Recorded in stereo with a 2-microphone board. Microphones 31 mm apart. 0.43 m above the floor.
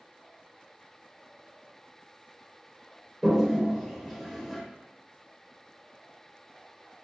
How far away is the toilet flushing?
About 0.8 m.